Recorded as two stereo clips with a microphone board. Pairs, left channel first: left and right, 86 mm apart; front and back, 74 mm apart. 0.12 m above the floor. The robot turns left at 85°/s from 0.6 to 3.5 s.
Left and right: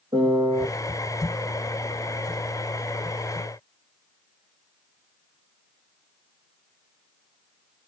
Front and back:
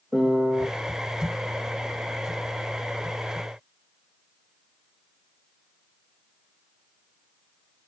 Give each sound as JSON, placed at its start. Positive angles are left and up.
{"t": 0.1, "sound": "a piano", "azimuth_deg": -95, "distance_m": 1.1}